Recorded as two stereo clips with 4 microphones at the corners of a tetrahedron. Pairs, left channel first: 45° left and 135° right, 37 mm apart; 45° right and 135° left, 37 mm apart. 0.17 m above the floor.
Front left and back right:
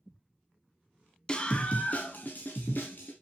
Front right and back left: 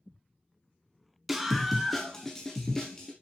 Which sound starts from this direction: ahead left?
A scream, at 1.3 s.